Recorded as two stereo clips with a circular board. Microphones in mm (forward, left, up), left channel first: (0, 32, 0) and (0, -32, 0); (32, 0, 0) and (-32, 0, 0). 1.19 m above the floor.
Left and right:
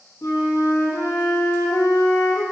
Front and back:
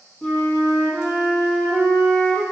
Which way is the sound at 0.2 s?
60° left.